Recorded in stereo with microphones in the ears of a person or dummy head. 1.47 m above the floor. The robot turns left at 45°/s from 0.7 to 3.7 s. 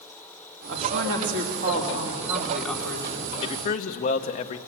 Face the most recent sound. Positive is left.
turn(degrees=45)  # may be behind; listen again after turning